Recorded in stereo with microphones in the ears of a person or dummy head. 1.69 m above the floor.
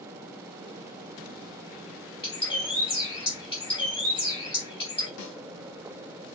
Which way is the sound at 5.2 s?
75° left (ahead or behind).